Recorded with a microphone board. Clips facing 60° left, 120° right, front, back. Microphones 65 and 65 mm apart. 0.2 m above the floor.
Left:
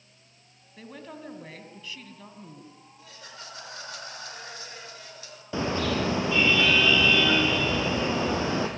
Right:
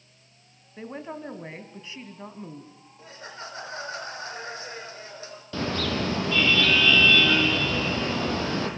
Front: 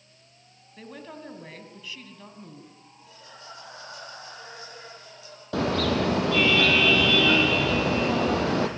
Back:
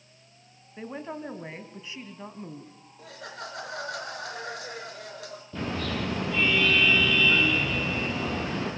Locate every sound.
0.8 s a woman speaking: 150° right, 1.6 m
3.0 s laughter: 175° right, 3.5 m
5.5 s a car horn: 10° right, 3.5 m